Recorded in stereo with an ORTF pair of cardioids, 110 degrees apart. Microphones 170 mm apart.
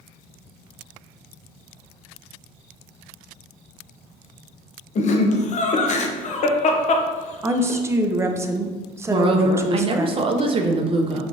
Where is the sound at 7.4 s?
15° right, 0.5 m.